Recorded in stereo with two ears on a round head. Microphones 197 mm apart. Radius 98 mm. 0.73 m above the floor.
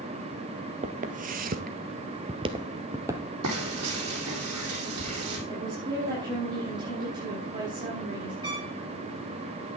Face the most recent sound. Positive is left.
turn(degrees=-20)  # may be behind; listen again after turning